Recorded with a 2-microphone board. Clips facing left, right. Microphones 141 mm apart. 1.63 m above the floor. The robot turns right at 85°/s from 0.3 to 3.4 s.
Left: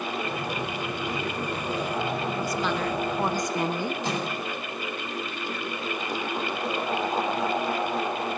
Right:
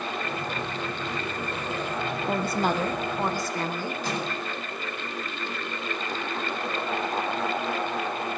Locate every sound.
2.2 s a woman speaking: 80° right, 1.3 m; by 4.0 s 20° left, 1.3 m
4.0 s a microwave: 20° left (ahead or behind), 8.5 m